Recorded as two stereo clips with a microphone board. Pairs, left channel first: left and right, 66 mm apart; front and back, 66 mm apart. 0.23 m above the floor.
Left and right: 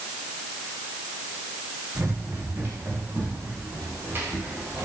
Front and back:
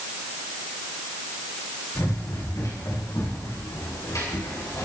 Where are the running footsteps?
35° right, 5.5 m.